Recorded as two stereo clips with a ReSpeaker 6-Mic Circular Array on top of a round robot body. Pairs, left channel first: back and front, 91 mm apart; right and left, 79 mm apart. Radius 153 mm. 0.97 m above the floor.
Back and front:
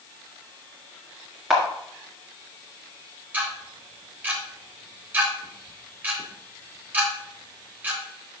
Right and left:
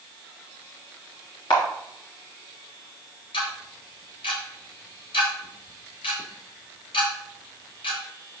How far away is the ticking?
About 1.1 m.